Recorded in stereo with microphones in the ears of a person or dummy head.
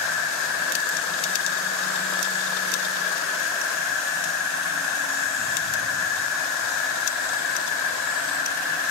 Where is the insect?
20° right (ahead or behind), 3.5 m.